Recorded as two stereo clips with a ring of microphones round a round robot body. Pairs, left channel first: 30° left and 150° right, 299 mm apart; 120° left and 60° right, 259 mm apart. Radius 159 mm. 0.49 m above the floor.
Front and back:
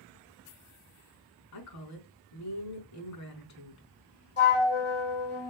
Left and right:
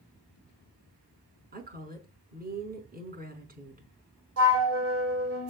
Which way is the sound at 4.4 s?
25° right.